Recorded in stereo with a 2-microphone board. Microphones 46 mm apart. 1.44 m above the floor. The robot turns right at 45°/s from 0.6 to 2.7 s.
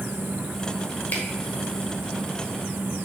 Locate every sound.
1.1 s a camera shutter: 45° left (ahead or behind), 1.5 m